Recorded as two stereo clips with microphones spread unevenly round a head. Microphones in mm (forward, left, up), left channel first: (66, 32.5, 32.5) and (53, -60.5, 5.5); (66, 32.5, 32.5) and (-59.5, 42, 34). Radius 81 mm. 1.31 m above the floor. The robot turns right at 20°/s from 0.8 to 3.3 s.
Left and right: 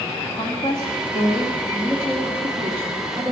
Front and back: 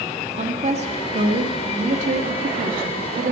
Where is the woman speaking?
150° left, 2 m; by 3.3 s 160° right, 2 m.